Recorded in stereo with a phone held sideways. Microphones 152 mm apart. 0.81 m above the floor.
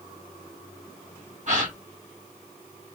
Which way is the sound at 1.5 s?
55° right (ahead or behind).